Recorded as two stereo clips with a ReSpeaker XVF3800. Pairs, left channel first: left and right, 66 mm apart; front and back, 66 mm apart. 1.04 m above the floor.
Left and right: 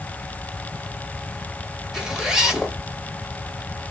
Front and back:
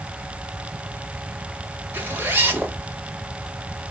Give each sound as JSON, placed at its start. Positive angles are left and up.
{"t": 1.9, "sound": "a zipper", "azimuth_deg": -165, "distance_m": 0.8}